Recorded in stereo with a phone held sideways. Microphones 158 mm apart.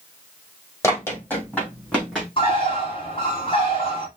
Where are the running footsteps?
15° left (ahead or behind), 3 m; by 2.3 s 5° left (ahead or behind), 3.5 m.